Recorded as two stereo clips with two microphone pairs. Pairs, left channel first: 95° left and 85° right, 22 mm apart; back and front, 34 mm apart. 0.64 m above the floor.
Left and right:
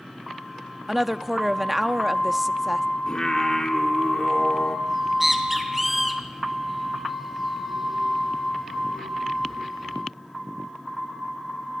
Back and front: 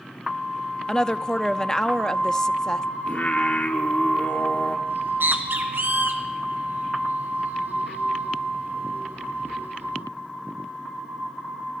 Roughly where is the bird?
Ahead.